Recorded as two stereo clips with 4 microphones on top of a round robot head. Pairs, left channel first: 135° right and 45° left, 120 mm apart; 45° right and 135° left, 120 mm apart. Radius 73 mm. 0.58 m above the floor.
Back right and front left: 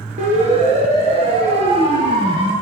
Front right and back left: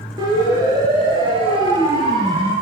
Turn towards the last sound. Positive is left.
turn(degrees=90)